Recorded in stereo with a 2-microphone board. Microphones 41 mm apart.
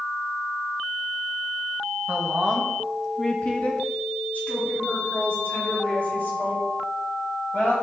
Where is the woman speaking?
30° right (ahead or behind), 1.0 m; by 7.7 s 55° left (ahead or behind), 5 m.